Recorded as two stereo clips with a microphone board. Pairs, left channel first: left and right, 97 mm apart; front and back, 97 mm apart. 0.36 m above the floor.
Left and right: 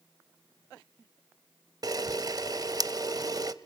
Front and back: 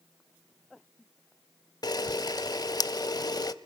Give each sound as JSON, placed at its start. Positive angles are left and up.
{"t": 1.8, "sound": "a camera shutter", "azimuth_deg": -45, "distance_m": 0.5}